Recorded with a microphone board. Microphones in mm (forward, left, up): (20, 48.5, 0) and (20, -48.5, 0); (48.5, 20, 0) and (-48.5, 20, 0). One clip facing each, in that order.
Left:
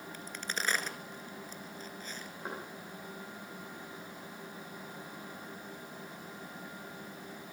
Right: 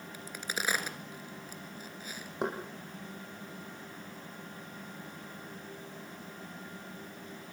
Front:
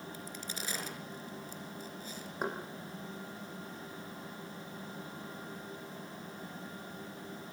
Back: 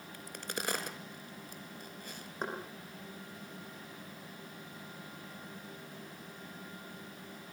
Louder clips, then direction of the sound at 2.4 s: Right 9 dB, front 2 dB; 85° right.